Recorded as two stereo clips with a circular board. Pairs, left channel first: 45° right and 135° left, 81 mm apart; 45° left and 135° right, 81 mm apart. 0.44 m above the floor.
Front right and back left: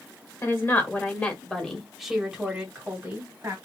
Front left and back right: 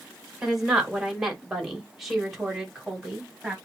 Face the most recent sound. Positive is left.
turn(degrees=140)